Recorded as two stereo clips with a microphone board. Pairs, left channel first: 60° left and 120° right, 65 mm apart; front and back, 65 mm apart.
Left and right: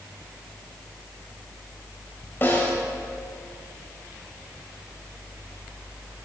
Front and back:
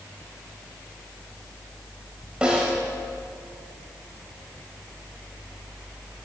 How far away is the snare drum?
About 2.5 m.